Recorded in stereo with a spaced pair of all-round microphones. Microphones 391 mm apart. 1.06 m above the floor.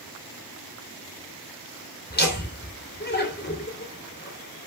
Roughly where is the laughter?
Left.